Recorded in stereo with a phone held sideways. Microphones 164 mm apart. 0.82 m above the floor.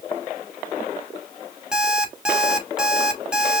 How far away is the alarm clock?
About 1.2 m.